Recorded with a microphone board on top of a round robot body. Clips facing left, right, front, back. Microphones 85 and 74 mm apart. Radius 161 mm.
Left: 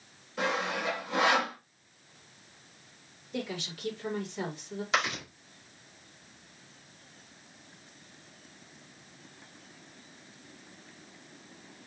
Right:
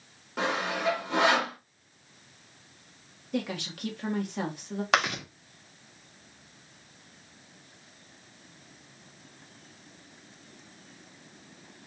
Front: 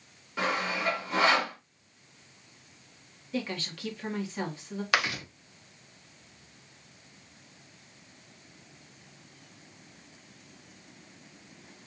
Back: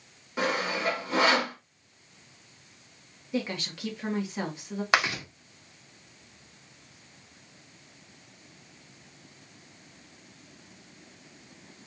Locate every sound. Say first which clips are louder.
0.4 s sawing: right 2 dB, back 1 dB; 110° right, 3 m
3.3 s a woman speaking: right 4 dB, back 2 dB; 110° right, 1.8 m
4.9 s chewing: right 4 dB, back 3 dB; 115° right, 2.5 m